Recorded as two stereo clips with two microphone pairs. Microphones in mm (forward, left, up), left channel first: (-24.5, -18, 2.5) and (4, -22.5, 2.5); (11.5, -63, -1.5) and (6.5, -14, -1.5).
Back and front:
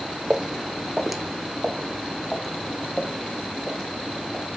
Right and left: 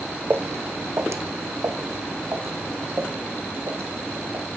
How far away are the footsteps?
About 1.1 m.